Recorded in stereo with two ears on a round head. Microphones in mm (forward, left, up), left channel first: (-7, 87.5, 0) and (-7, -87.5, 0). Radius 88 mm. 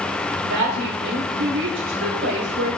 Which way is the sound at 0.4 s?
75° right (ahead or behind).